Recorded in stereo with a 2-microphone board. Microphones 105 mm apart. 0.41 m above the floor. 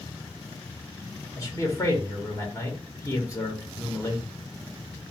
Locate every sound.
1.4 s a man speaking: 30° left (ahead or behind), 1.4 m